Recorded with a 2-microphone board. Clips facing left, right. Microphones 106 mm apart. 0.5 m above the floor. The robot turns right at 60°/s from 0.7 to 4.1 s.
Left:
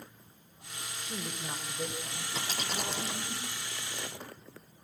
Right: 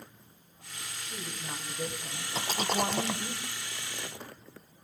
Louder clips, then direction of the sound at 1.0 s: Left 2 dB; 135° left.